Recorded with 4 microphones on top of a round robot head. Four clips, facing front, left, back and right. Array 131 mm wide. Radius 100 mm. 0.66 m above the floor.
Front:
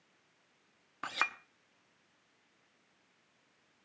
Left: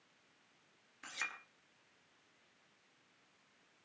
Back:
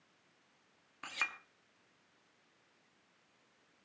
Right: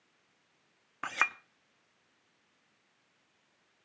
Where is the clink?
60° right, 0.8 m.